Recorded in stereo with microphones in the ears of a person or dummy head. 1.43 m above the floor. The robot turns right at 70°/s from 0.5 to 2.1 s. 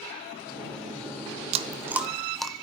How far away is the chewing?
About 0.7 m.